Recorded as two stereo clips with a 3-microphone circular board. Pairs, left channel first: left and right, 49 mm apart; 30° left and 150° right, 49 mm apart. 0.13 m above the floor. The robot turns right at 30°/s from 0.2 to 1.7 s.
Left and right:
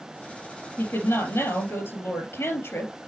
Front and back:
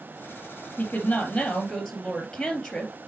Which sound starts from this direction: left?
A woman speaking, at 0.8 s.